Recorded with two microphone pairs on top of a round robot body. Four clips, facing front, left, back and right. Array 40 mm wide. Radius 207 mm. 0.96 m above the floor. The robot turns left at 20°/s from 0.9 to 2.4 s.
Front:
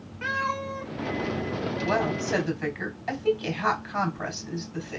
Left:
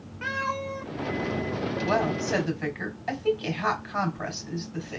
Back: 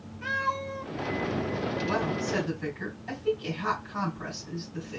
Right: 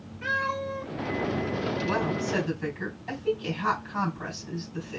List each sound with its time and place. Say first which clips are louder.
0.2 s a cat meowing: right 1 dB, front 1 dB; 50° left, 0.7 m
1.8 s a woman speaking: left 5 dB, front 5 dB; 65° left, 3 m; by 5.0 s 55° left, 3 m